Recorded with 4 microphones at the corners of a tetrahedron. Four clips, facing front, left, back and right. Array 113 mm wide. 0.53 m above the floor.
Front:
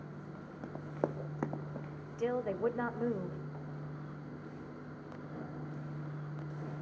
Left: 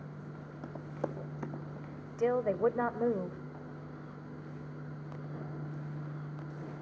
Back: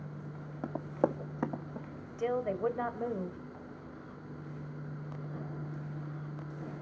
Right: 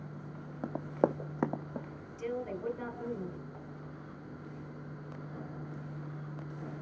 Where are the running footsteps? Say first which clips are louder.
Right 9 dB, back 6 dB; 130° right, 1.3 m; by 1.9 s 90° right, 1.7 m.